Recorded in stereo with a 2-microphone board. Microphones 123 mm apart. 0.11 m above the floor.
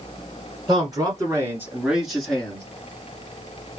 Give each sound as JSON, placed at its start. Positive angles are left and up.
{"t": 0.7, "sound": "a man speaking", "side_deg": -35, "distance_m": 1.9}